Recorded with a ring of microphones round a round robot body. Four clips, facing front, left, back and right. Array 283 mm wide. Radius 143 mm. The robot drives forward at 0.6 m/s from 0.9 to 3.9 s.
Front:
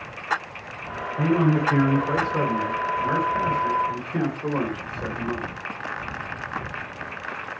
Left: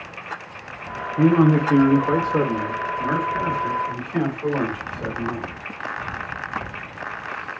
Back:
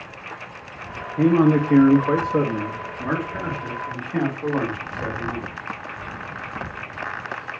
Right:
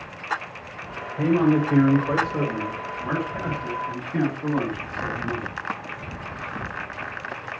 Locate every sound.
1.2 s a man speaking: 125° left, 0.6 m; by 5.5 s 165° left, 2 m